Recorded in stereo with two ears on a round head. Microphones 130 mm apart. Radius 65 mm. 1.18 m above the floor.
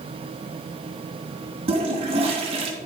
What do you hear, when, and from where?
1.7 s a toilet flushing: 40° right (ahead or behind), 1.4 m